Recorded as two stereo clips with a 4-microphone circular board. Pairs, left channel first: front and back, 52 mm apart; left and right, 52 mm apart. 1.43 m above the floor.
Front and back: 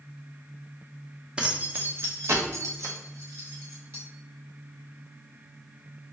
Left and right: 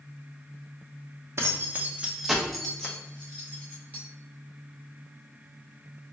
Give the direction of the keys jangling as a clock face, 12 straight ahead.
4 o'clock.